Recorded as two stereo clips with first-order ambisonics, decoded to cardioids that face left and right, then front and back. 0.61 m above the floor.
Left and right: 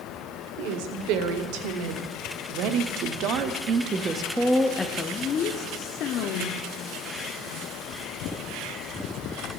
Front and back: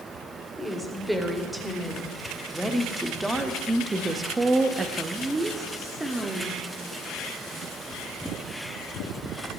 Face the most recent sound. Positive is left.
turn(degrees=100)